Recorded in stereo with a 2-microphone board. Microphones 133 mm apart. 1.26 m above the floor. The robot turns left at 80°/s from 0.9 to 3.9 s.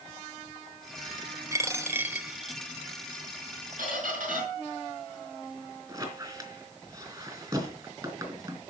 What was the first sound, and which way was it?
A dropped coin, 20° right (ahead or behind).